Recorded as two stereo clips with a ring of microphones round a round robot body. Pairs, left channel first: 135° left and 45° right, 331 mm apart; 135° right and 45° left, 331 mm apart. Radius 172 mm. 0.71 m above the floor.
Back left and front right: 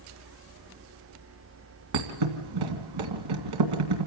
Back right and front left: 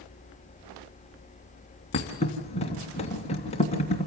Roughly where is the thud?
Ahead right.